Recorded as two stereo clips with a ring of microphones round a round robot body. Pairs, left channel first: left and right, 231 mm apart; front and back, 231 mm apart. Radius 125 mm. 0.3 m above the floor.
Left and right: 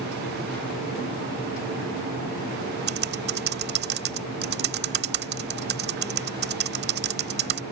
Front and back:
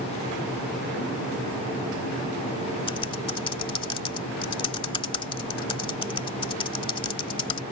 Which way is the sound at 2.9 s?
65° right.